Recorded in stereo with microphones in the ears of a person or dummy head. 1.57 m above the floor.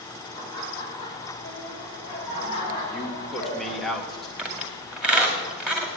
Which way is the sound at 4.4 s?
10° right (ahead or behind).